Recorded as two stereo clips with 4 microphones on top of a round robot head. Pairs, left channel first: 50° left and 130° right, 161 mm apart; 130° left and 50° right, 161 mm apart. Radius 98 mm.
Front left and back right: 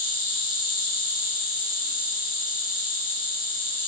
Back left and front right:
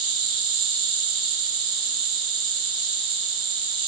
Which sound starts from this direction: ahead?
An insect, at 0.0 s.